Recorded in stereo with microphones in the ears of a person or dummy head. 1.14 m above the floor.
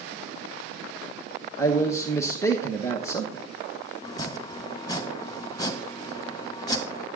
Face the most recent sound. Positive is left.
turn(degrees=20)  # may be behind; listen again after turning